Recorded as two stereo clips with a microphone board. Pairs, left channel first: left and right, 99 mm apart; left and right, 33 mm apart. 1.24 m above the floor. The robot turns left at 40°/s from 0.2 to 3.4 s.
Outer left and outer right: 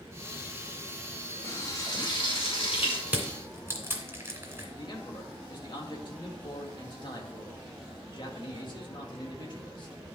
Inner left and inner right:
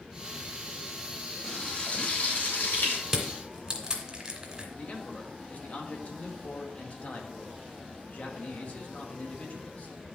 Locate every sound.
1.4 s frying: 155° left, 4 m; by 3.0 s 90° left, 4 m
3.1 s crushing: 10° right (ahead or behind), 2.5 m; by 4.7 s 20° right (ahead or behind), 2.5 m
4.8 s a man speaking: 50° left (ahead or behind), 1.9 m